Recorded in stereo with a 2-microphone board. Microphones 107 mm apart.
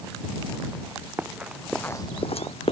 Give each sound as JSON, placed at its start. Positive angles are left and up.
{"t": 1.2, "sound": "running footsteps", "side_deg": -15}